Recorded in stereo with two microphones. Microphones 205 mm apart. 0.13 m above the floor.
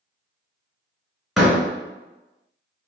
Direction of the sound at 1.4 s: Centre (ahead or behind).